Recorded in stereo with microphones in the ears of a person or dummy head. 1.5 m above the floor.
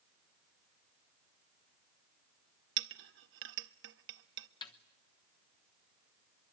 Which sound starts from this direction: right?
A clink, at 2.8 s.